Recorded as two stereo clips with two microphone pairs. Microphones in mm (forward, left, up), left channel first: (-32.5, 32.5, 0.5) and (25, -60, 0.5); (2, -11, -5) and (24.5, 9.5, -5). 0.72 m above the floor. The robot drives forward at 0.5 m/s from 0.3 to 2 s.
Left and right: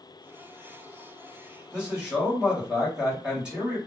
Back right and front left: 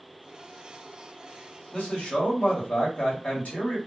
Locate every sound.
1.7 s a man speaking: 130° right, 1.2 m; by 3.8 s 135° right, 1.3 m